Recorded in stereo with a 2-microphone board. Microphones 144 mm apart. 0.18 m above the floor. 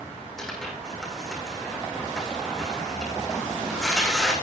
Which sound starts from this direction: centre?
Tearing paper, at 0.4 s.